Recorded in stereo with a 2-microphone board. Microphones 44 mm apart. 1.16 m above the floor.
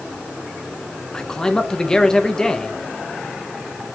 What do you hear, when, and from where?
1.1 s a man speaking: 15° left (ahead or behind), 0.8 m